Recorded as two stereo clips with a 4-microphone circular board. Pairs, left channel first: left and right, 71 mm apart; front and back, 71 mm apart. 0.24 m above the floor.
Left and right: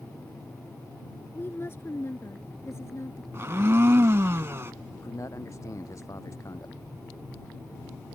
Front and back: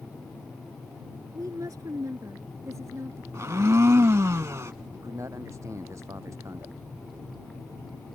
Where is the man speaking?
135° left.